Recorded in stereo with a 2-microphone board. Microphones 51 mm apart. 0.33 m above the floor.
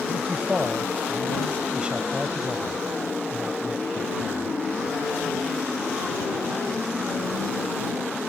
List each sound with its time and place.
0.1 s a man speaking: 25° right (ahead or behind)